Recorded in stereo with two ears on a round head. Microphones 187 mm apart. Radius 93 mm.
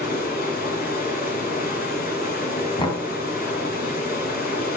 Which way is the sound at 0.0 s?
45° left (ahead or behind).